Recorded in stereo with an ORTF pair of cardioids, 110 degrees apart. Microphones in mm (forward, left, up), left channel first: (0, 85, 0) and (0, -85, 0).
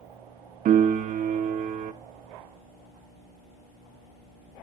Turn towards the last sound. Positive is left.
turn(degrees=-55)